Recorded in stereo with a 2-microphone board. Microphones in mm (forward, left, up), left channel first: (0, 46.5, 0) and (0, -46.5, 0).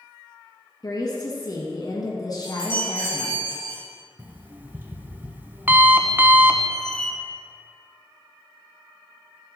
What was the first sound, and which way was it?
A woman speaking, 45° left (ahead or behind).